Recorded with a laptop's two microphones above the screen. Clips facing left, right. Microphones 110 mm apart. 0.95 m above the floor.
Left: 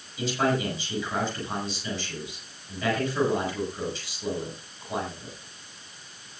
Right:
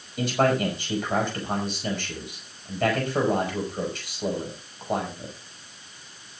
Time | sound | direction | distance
0.2 | a man speaking | 50° right (ahead or behind) | 6.5 m